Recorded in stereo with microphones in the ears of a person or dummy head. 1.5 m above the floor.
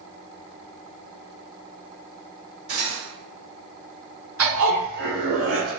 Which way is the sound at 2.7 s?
65° right (ahead or behind).